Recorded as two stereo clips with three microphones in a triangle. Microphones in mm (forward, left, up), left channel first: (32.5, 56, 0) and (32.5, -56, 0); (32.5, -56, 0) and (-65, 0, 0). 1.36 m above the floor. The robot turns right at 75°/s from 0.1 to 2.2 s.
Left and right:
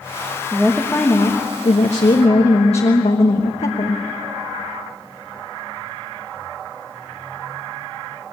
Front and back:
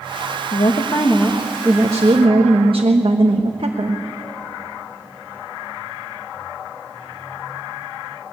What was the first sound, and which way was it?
A woman speaking, 15° right.